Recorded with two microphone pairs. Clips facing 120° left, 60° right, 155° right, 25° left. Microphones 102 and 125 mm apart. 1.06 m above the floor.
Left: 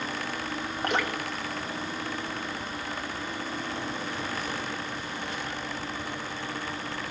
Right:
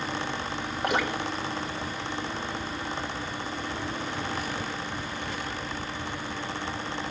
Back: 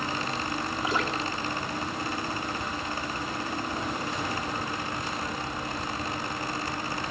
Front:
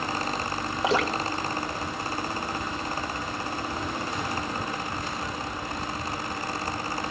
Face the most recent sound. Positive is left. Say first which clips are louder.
# right 2 dB, front 6 dB
turn(degrees=25)